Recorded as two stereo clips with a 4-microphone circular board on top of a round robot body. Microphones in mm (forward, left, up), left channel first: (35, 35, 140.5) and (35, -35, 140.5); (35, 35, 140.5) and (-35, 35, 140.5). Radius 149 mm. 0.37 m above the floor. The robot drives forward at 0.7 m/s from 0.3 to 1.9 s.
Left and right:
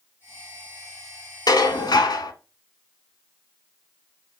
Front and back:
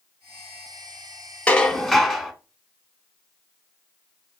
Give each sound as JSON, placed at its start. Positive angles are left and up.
{"t": 1.5, "sound": "dishes clattering", "azimuth_deg": 75, "distance_m": 1.0}